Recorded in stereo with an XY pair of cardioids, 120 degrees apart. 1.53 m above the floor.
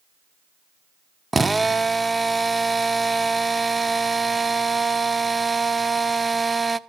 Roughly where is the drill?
Ahead.